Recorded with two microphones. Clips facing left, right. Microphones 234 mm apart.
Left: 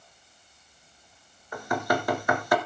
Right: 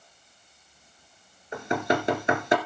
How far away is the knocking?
About 1.8 m.